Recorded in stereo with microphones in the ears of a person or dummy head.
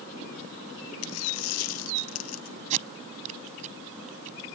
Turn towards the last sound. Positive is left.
turn(degrees=-40)  # may be behind; listen again after turning